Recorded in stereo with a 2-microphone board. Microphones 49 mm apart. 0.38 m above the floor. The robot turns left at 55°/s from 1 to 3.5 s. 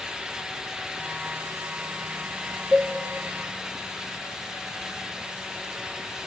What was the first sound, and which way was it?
A cowbell, 10° right (ahead or behind).